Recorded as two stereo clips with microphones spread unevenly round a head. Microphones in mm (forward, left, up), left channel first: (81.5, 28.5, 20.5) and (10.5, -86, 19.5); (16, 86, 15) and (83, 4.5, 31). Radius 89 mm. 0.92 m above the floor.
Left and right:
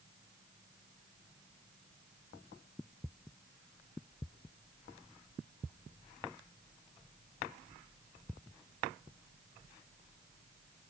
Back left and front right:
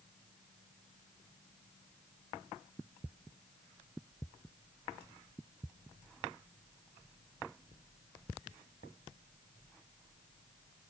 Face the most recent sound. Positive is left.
No sound to turn to.